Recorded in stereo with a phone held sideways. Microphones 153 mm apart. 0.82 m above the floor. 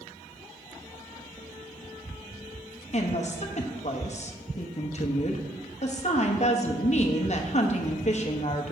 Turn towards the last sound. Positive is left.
turn(degrees=50)  # may be behind; listen again after turning